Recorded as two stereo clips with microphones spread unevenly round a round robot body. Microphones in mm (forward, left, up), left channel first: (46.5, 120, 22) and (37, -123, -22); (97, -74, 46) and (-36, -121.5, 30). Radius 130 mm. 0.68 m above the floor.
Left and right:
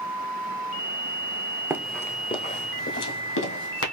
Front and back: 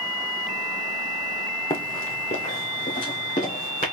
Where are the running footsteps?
5° right, 0.8 m; by 3.8 s 75° left, 1.8 m.